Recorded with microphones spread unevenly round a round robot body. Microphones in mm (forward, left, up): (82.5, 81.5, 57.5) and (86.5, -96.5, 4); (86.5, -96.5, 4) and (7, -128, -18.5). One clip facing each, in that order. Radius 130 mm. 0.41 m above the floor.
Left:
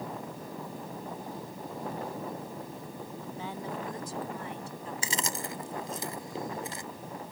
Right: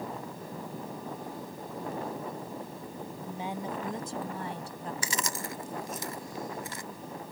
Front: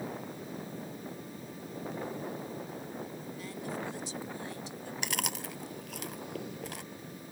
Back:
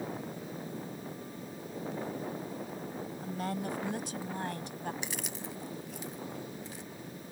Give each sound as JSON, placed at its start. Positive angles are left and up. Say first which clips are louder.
{"t": 3.2, "sound": "a woman speaking", "louder": "right 3 dB, back 5 dB", "azimuth_deg": -160}
{"t": 5.0, "sound": "chewing", "louder": "left 2 dB, front 3 dB", "azimuth_deg": 25}